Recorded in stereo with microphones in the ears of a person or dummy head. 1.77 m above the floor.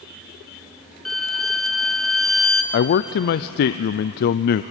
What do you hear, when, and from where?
1.1 s a violin: 5° left (ahead or behind), 1.4 m
2.7 s a man speaking: 60° left (ahead or behind), 0.5 m